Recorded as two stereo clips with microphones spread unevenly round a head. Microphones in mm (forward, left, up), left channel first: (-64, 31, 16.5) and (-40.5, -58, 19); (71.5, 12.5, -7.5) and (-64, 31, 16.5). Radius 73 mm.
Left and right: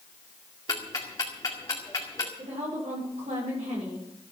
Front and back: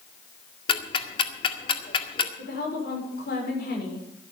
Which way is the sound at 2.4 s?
35° right.